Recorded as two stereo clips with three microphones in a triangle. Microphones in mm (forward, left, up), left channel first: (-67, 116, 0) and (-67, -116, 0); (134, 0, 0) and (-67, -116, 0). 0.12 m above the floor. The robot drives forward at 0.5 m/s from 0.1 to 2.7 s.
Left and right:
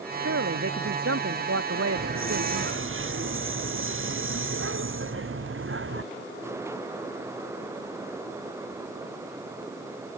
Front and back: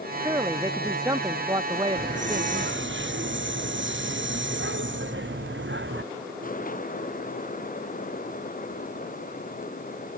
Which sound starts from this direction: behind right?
A hiss, at 1.9 s.